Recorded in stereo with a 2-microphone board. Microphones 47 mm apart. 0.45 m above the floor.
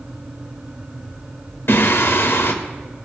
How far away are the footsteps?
No footsteps in this recording.